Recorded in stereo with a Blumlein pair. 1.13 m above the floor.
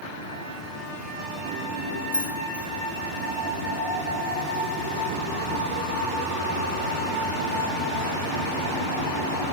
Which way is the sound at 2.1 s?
65° right.